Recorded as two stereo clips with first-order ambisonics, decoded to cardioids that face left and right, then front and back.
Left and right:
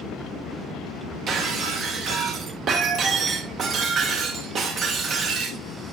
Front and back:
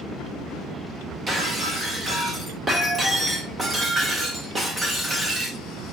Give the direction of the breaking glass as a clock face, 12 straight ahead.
4 o'clock.